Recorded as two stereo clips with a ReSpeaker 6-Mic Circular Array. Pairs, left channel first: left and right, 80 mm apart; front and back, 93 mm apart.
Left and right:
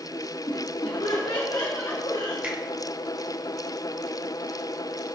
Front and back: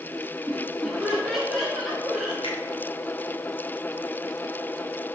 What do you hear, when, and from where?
0.5 s laughter: 85° left, 0.9 m; by 2.3 s 100° left, 2.5 m
2.4 s a finger snap: 20° right, 2 m